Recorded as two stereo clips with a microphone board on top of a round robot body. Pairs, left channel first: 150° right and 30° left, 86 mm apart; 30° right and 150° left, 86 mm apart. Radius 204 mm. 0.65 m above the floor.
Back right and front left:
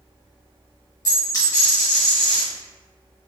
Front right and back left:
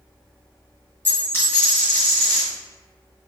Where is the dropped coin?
100° right, 1.8 m.